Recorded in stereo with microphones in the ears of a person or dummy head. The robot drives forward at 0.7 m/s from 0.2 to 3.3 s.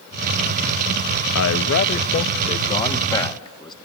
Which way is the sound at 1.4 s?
70° left (ahead or behind).